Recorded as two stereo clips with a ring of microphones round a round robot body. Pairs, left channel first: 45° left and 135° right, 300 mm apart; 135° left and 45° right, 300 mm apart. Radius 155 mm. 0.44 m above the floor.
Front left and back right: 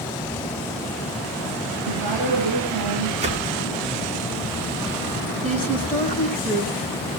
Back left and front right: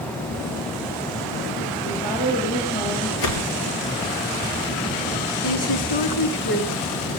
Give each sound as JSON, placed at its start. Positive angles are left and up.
{"t": 1.9, "sound": "a woman speaking", "azimuth_deg": -160, "distance_m": 8.5}
{"t": 3.2, "sound": "a whoosh", "azimuth_deg": 155, "distance_m": 2.5}
{"t": 5.4, "sound": "a woman speaking", "azimuth_deg": 130, "distance_m": 4.5}